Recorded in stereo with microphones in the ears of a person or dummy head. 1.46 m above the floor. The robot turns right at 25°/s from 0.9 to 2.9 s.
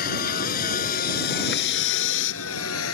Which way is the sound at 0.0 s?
50° left (ahead or behind).